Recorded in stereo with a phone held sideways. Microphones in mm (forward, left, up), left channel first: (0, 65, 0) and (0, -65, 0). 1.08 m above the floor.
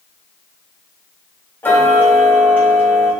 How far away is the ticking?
About 3 m.